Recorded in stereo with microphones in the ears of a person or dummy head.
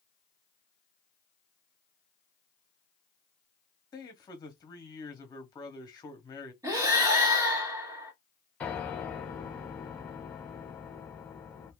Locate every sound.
3.9 s a man speaking: 20° left (ahead or behind), 1.0 m
6.6 s breathing: 15° right (ahead or behind), 1.0 m
8.6 s a piano: 10° left (ahead or behind), 0.7 m